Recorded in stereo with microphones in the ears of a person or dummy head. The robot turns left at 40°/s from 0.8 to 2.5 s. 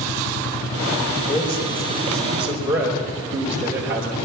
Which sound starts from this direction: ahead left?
A man speaking, at 1.3 s.